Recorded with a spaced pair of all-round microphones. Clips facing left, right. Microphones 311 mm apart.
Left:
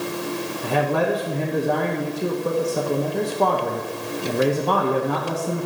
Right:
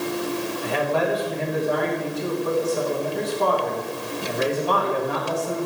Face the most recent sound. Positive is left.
turn(degrees=55)  # may be behind; listen again after turning